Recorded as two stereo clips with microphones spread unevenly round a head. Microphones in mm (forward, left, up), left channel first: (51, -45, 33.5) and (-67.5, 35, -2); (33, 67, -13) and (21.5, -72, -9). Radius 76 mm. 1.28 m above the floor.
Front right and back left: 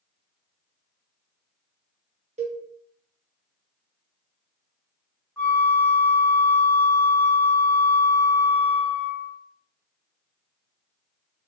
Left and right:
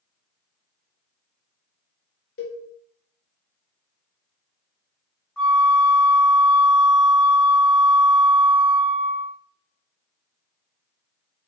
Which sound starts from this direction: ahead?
A flute, at 5.4 s.